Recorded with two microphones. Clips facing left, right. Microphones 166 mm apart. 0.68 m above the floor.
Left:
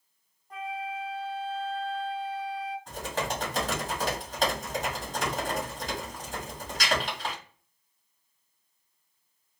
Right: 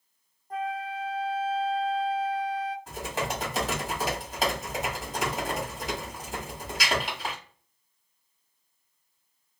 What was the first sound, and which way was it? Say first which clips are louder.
A flute: right 3 dB; 40° right (ahead or behind).